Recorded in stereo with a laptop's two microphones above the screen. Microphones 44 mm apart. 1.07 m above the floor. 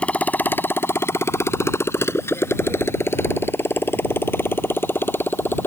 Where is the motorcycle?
25° left (ahead or behind); by 5.7 s 55° left (ahead or behind).